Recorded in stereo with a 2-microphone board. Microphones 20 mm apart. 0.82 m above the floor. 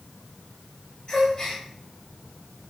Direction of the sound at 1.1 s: 35° left (ahead or behind).